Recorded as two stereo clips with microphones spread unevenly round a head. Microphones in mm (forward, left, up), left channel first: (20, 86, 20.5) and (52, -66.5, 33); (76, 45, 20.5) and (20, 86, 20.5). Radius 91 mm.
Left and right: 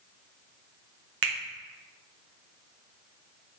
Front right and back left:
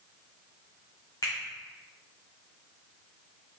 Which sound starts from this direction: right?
A finger snap, at 1.2 s.